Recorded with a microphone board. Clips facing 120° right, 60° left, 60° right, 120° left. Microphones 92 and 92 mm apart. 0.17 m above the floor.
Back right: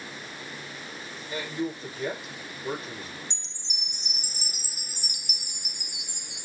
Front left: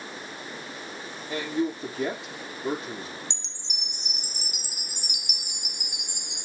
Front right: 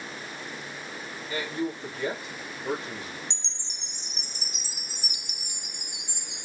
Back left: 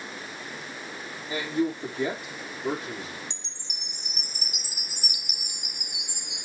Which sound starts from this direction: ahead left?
A man speaking, at 1.3 s.